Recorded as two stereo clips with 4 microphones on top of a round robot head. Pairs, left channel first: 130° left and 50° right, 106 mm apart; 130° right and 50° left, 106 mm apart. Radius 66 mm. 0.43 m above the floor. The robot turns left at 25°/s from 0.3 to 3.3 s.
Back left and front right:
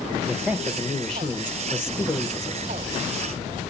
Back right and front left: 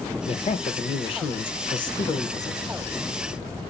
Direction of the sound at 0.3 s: 125° right.